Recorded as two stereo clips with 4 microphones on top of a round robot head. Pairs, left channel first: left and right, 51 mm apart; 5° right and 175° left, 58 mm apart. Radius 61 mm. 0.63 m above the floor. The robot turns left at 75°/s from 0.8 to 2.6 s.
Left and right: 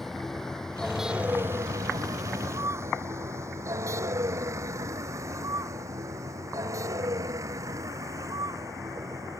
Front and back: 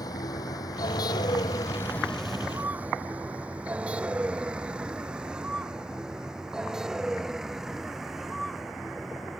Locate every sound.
0.0 s a vehicle: 5° left; by 9.4 s 100° right